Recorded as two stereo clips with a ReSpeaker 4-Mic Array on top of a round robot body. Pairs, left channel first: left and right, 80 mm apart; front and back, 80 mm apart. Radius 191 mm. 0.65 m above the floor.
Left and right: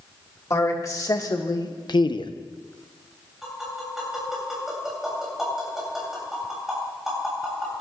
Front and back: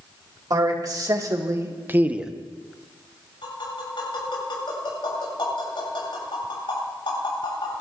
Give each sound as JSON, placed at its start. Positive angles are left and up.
{"t": 0.5, "sound": "a man speaking", "azimuth_deg": 140, "distance_m": 2.5}
{"t": 3.4, "sound": "tapping", "azimuth_deg": -5, "distance_m": 7.5}